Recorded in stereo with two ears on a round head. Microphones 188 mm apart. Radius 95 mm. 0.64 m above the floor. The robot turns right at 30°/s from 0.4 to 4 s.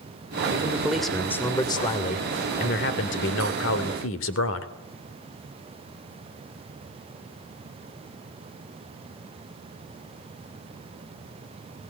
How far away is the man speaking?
About 2.5 m.